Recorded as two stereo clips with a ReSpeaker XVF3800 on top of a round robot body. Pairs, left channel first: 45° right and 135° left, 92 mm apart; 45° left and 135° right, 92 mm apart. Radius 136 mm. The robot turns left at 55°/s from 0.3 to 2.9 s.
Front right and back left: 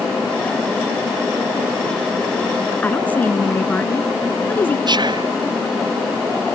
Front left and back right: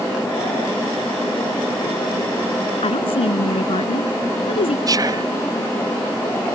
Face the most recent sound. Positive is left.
turn(degrees=175)